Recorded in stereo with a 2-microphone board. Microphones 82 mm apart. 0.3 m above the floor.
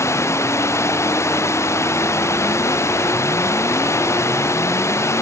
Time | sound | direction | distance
0.0 | running water | 35° left (ahead or behind) | ?